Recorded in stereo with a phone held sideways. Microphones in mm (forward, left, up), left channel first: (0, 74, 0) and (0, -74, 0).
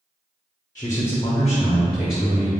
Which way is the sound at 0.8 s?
25° left (ahead or behind).